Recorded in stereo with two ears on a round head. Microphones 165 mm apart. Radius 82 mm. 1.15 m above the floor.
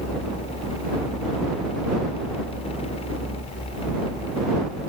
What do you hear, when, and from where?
Only background noise.